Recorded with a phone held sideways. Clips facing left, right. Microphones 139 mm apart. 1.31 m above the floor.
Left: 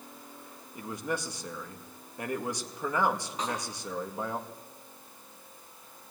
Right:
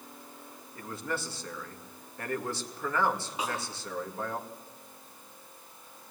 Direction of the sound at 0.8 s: 15° left (ahead or behind).